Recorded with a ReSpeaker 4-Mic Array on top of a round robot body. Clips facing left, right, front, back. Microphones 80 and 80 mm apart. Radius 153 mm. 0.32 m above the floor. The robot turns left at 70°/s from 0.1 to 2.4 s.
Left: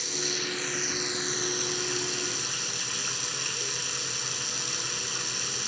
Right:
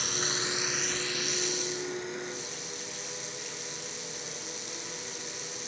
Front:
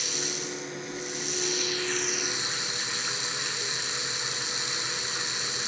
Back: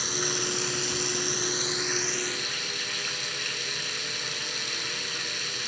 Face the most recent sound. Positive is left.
turn(degrees=70)